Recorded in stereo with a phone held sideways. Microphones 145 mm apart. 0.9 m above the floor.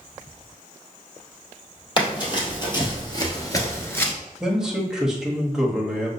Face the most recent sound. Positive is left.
turn(degrees=-5)  # may be behind; listen again after turning